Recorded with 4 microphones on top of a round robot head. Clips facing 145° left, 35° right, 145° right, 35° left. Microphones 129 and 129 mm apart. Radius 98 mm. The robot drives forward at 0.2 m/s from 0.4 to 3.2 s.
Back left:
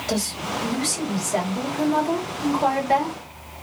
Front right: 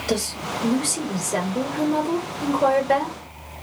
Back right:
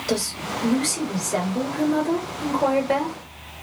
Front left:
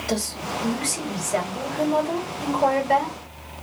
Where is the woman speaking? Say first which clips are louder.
Front right 1 dB, back right 2 dB; 75° right, 1.9 m; by 3.2 s 95° right, 1.9 m.